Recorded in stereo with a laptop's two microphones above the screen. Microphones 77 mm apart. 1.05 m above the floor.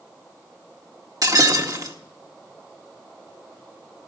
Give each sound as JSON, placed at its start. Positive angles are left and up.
{"t": 1.2, "sound": "breaking glass", "side_deg": -50, "distance_m": 1.6}